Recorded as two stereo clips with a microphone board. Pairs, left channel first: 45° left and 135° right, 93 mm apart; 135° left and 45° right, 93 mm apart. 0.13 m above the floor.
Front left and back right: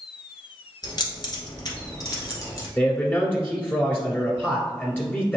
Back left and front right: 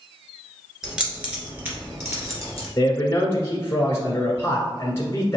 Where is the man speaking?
100° left, 1.4 m.